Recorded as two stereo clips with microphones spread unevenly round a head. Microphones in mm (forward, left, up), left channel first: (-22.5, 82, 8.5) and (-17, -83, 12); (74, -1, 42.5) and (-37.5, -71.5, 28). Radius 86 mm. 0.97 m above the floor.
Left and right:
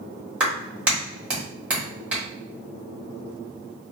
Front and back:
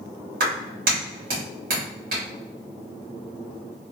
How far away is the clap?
About 1.6 m.